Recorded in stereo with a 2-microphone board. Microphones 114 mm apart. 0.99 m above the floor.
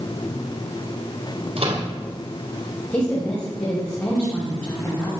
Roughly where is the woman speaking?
Centre.